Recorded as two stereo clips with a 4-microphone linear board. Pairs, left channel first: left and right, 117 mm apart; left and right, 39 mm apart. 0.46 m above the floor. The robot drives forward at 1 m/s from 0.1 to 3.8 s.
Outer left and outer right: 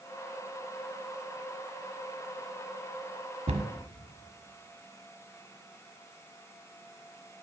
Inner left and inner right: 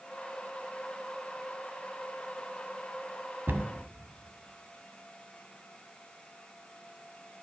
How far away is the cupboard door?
About 1.0 m.